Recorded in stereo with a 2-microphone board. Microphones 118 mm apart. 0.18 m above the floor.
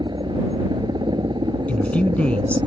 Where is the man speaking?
10° left (ahead or behind).